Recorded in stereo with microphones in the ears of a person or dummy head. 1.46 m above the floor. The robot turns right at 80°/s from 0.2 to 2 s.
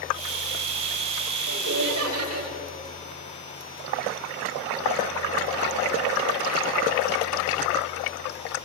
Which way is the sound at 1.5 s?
130° right.